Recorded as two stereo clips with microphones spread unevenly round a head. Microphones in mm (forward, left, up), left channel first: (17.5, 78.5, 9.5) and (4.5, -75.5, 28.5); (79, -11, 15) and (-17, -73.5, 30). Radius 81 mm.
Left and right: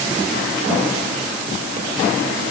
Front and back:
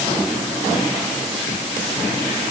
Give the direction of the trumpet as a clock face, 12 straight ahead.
I don't hear a trumpet.